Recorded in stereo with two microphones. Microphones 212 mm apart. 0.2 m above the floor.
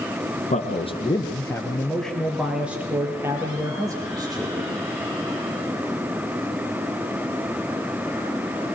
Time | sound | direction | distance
0.5 | a man speaking | 35° left (ahead or behind) | 2.5 m